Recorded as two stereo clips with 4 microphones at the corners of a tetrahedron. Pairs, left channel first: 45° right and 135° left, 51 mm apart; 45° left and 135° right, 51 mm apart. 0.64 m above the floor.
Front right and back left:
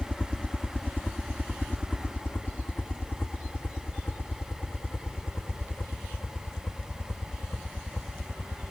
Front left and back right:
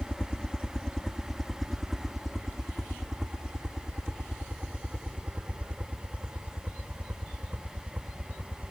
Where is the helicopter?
Straight ahead; by 8.7 s 85° right.